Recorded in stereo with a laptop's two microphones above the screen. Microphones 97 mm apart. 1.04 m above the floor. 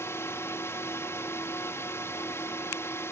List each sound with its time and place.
0.0 s a drone: 30° left (ahead or behind)